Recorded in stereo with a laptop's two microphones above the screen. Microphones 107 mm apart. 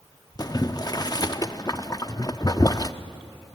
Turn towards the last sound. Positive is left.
turn(degrees=35)  # may be behind; listen again after turning